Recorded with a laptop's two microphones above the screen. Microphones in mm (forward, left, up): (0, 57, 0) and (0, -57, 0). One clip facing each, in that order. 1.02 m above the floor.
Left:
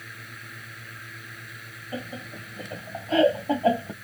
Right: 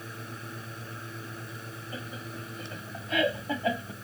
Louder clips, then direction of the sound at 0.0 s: Right 3 dB; 30° right (ahead or behind).